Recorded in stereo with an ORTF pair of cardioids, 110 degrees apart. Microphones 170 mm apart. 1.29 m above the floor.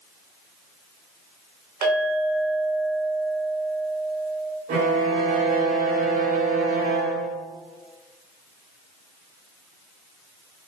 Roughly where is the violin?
Ahead right.